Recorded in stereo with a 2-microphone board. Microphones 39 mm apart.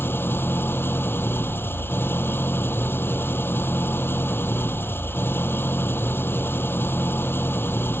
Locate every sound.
0.0 s an engine running: 65° left (ahead or behind)